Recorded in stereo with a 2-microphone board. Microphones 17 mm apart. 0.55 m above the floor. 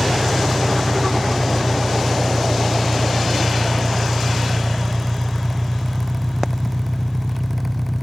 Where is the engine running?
10° right (ahead or behind).